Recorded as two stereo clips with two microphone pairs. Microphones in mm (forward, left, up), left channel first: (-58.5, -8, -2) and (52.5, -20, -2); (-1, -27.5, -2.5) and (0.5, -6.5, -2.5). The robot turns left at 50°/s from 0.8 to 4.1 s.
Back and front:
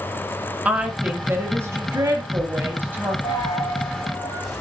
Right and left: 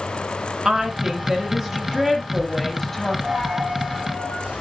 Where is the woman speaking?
55° left, 1.1 m; by 3.1 s 60° right, 1.1 m.